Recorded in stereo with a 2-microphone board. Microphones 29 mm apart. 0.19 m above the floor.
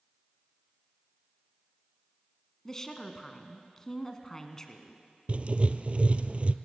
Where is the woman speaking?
20° left (ahead or behind), 1.8 m.